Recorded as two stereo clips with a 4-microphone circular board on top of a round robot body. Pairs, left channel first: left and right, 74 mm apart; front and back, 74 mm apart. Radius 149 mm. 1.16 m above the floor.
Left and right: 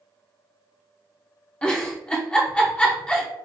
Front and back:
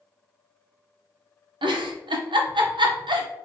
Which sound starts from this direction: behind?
A giggle, at 1.6 s.